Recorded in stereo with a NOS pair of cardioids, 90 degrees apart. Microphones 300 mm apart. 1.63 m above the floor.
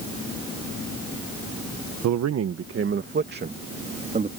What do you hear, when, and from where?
2.0 s a man speaking: 65° right; by 4.3 s 25° right